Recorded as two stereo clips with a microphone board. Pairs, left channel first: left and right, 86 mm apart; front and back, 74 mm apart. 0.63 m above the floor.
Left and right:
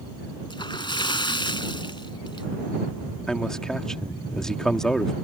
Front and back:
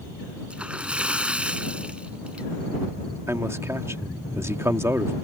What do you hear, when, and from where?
0.5 s a splash: 105° left
3.3 s a man speaking: 170° left